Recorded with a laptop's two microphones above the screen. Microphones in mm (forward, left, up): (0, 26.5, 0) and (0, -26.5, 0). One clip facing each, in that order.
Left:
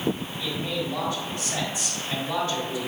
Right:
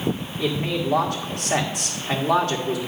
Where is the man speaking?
65° right (ahead or behind), 1.6 m.